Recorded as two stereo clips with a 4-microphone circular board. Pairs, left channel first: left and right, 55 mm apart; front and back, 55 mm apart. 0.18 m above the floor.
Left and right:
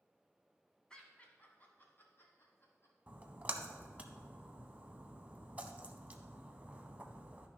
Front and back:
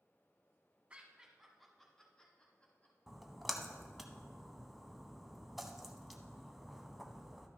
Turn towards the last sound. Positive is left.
turn(degrees=-90)